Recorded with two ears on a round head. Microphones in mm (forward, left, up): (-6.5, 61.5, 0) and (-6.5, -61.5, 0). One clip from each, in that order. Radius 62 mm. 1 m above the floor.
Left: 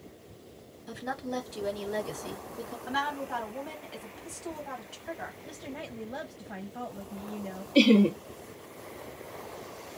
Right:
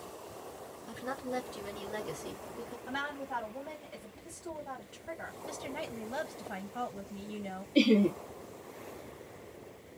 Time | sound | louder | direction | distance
0.9 | a woman speaking | left 3 dB | 25° left (ahead or behind) | 1.3 m
2.9 | a woman speaking | left 6 dB | 35° left (ahead or behind) | 1.3 m
5.5 | a woman speaking | right 2 dB | 50° right (ahead or behind) | 0.6 m
7.8 | laughter | left 4 dB | 30° left (ahead or behind) | 0.5 m